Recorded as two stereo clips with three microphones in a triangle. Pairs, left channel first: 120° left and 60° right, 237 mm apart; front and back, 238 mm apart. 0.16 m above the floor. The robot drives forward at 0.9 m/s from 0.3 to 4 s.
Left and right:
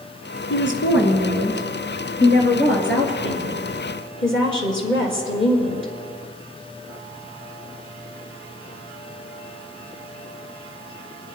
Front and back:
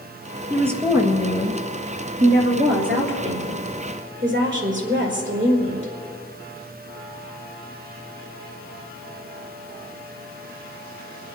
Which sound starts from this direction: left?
A woman speaking, at 0.5 s.